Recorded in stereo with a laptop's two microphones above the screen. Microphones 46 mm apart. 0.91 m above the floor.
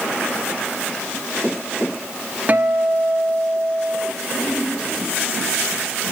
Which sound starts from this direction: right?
A guitar, at 2.5 s.